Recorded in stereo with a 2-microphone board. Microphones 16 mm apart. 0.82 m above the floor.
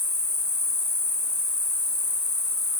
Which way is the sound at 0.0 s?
60° left (ahead or behind).